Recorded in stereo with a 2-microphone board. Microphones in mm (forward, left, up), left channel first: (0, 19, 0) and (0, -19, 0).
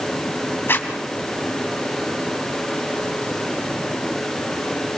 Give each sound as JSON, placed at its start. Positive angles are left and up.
{"t": 0.7, "sound": "a zipper", "side_deg": 70, "distance_m": 3.0}